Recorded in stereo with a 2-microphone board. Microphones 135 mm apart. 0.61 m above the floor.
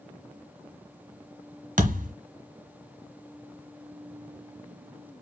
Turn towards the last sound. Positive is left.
turn(degrees=-80)